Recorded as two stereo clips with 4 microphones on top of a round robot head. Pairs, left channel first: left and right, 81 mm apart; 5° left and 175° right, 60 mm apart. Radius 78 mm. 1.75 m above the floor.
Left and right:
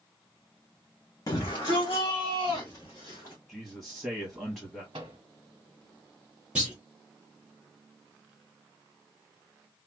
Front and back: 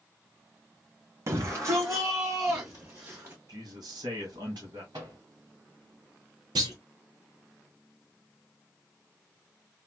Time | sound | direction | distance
1.3 | a shout | 145° left | 0.5 m
3.5 | a man speaking | straight behind | 1.4 m
4.9 | a microwave | 130° right | 0.8 m
6.5 | a clunk | 170° right | 0.8 m